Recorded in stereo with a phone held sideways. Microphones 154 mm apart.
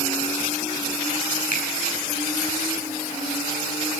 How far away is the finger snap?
About 8 m.